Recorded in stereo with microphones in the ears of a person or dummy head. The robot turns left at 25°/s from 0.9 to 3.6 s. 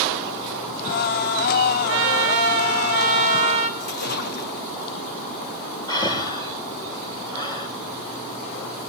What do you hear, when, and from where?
1.9 s a trumpet: 100° right, 2 m; by 3.7 s 145° right, 2 m
3.8 s a splash: 55° left (ahead or behind), 2 m
5.9 s breathing: 25° left (ahead or behind), 4.5 m